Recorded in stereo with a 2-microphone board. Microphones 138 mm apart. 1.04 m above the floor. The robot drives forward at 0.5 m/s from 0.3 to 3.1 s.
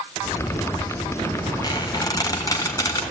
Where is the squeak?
30° left (ahead or behind), 2.5 m; by 3.0 s 20° left (ahead or behind), 3 m.